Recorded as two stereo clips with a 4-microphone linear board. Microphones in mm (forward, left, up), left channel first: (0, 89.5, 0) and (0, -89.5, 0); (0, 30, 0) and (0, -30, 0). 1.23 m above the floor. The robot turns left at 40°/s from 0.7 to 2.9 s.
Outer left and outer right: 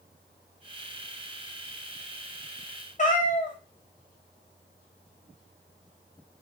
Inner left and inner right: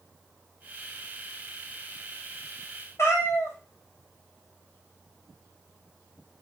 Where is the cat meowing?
45° left (ahead or behind), 0.6 m.